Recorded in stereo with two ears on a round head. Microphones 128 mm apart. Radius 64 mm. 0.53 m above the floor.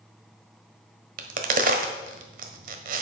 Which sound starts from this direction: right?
A crack, at 1.2 s.